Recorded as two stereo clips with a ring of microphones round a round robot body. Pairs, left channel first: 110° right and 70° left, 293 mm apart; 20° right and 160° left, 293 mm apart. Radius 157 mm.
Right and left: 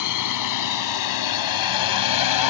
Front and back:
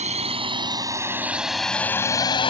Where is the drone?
135° right; by 2.5 s 95° right.